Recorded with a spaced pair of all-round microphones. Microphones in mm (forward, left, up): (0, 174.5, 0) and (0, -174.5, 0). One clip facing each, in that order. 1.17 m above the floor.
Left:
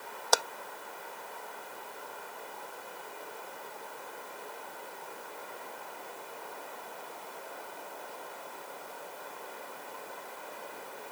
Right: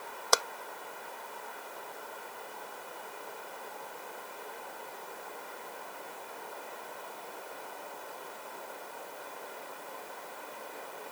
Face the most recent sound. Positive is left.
turn(degrees=-5)  # may be behind; listen again after turning